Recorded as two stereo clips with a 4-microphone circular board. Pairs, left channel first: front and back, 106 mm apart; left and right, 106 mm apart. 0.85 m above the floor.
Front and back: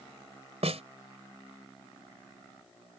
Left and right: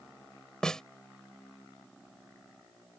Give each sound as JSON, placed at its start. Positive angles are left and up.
{"t": 0.6, "sound": "a snare drum", "azimuth_deg": 175}